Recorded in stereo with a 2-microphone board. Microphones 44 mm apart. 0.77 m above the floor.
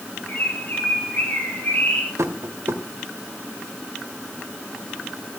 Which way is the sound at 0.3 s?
40° left (ahead or behind).